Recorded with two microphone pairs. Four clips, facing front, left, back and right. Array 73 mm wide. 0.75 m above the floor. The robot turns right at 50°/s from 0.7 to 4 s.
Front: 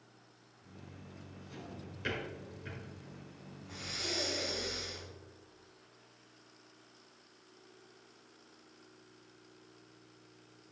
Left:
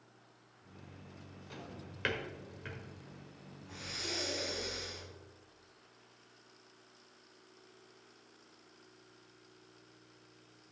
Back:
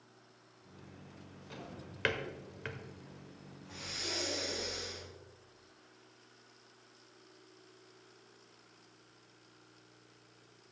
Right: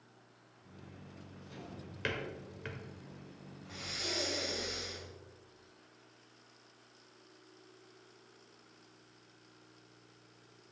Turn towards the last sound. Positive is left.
turn(degrees=-55)